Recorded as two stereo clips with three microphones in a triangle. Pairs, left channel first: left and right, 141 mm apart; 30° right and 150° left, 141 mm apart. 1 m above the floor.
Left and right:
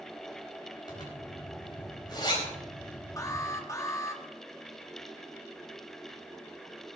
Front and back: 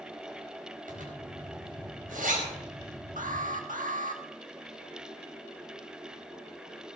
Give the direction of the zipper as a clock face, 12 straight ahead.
7 o'clock.